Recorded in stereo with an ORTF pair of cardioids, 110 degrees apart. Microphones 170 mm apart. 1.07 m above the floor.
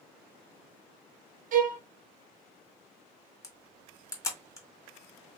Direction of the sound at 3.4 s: 20° left.